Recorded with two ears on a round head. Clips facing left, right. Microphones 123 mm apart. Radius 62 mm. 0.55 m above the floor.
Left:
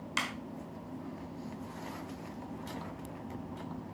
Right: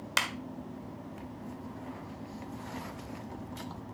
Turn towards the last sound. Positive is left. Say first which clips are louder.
# right 3 dB
turn(degrees=-60)  # may be behind; listen again after turning